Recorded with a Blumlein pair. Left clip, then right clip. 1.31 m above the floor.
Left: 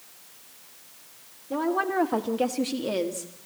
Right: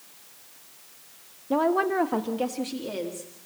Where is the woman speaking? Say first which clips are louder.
Right 3 dB; 25° right, 1.2 m; by 3.3 s 20° left, 2.5 m.